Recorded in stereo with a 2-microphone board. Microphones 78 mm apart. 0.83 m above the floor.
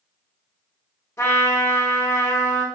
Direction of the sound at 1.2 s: 35° left (ahead or behind).